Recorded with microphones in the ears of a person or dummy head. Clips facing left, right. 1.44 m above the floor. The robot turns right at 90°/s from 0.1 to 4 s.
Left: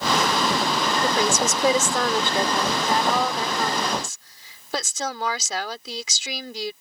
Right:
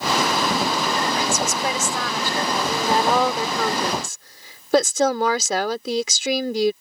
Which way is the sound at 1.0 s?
35° left.